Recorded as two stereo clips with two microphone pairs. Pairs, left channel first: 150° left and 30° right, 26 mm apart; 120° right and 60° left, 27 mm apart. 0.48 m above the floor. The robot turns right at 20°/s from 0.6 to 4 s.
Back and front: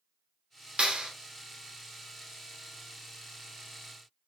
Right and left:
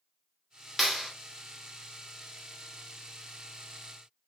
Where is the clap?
30° right, 1.1 m; by 1.1 s 20° right, 1.1 m.